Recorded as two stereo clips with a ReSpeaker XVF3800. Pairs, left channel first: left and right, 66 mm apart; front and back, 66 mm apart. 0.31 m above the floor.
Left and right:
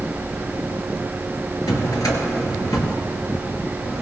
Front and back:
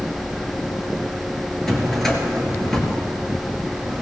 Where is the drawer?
85° left, 2 m.